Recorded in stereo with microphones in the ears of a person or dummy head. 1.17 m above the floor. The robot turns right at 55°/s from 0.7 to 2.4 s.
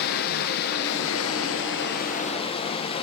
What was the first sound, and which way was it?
Running water, 60° left.